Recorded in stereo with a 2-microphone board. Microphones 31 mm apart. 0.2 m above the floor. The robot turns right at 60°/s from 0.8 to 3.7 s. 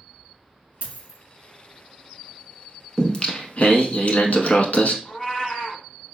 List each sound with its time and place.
0.8 s a dropped coin: 60° right (ahead or behind), 1.3 m; by 1.2 s 40° right (ahead or behind), 1.3 m
3.0 s singing: 15° left, 0.7 m; by 5.0 s 60° left, 0.7 m
5.0 s a cat meowing: 40° left (ahead or behind), 0.8 m